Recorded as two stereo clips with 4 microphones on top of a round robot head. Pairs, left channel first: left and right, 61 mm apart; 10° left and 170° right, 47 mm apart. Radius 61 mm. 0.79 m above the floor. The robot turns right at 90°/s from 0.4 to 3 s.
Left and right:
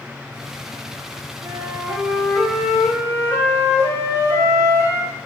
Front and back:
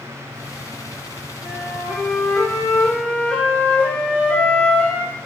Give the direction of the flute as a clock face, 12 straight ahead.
2 o'clock.